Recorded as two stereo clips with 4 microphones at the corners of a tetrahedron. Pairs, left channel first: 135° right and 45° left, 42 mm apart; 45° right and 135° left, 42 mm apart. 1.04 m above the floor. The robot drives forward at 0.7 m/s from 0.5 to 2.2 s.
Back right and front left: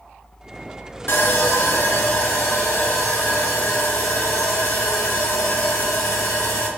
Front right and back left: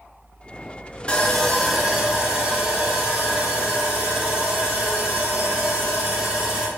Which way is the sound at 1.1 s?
105° right.